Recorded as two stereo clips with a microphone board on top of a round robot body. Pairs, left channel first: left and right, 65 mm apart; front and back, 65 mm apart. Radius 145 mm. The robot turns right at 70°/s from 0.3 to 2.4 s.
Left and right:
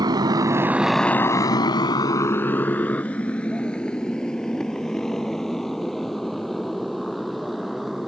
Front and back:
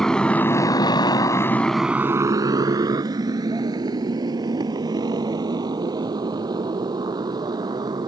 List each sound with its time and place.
0.0 s a motorcycle: 85° right; by 8.1 s straight behind